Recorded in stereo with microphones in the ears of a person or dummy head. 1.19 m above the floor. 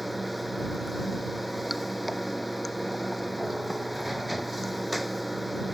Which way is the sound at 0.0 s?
Centre (ahead or behind).